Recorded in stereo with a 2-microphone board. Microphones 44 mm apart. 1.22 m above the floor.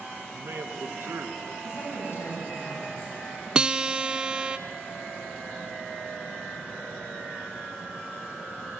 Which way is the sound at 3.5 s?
20° right (ahead or behind).